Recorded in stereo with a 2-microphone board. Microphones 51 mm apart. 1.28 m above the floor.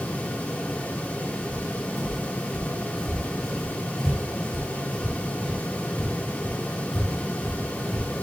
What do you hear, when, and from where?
1.5 s footsteps: 10° right (ahead or behind), 1.6 m; by 8.1 s 15° left (ahead or behind), 3 m